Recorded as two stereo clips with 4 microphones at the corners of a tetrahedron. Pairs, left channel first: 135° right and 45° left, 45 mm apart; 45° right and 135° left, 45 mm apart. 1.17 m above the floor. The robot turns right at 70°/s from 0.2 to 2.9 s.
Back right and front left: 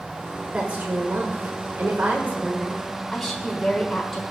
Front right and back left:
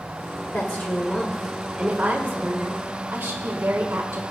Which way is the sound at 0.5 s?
25° right.